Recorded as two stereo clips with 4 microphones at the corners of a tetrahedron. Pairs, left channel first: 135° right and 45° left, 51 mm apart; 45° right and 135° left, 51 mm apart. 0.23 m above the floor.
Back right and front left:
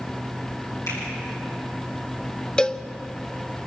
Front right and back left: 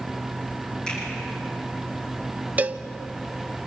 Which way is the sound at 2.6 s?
160° left.